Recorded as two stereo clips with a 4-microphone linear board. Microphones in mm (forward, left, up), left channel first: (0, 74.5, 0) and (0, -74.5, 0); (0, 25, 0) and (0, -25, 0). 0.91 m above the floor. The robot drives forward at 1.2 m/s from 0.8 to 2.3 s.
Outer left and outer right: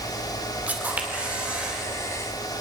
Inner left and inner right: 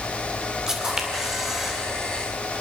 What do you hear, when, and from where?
0.7 s a camera shutter: 10° right (ahead or behind), 2.5 m; by 1.8 s 5° right (ahead or behind), 4 m